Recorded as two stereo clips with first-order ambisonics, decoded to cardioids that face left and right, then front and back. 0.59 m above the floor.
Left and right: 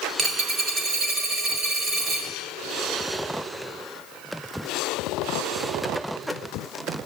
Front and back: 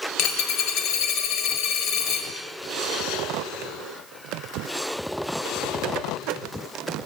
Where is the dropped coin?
30° right, 1.4 m.